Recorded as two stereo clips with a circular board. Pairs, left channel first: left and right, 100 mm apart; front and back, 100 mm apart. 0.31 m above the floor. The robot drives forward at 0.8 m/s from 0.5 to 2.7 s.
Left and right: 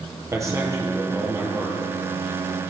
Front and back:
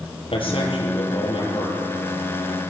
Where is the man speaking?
30° right, 8.5 m; by 1.8 s 35° right, 7.5 m.